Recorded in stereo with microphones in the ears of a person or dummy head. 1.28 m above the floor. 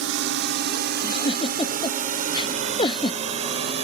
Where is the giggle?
25° left (ahead or behind).